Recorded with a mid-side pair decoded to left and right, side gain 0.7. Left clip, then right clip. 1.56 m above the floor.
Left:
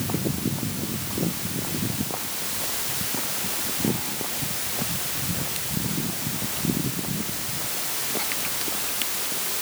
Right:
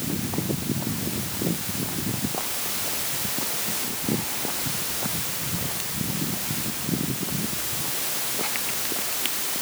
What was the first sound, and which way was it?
Only background noise.